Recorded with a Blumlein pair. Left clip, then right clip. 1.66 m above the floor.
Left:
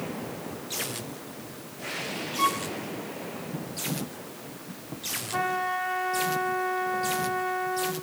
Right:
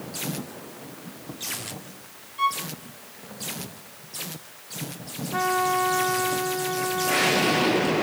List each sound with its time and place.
2.4 s a violin: straight ahead, 0.8 m
5.3 s a trumpet: straight ahead, 4 m